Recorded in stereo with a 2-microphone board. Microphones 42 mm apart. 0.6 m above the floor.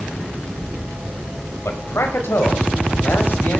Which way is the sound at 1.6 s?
75° left (ahead or behind).